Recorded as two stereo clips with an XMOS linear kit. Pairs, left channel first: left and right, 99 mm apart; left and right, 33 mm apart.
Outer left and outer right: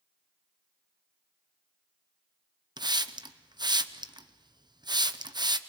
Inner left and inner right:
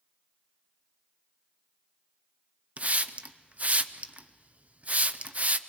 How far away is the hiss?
About 0.7 m.